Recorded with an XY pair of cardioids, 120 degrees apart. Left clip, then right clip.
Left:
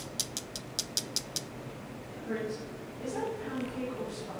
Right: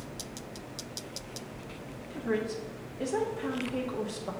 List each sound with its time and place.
2.1 s a woman speaking: 65° right, 1.9 m